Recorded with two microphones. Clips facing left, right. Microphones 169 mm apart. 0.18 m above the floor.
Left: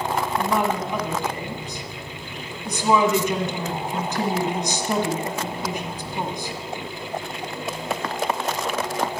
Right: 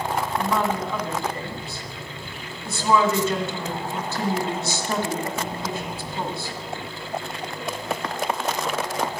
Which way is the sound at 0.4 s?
15° left (ahead or behind).